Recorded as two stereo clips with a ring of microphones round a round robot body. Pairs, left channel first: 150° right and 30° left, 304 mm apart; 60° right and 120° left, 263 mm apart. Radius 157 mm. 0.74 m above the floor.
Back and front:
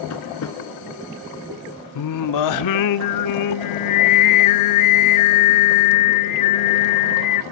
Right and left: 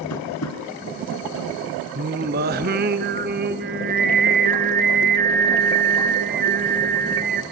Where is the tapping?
105° right, 2.5 m.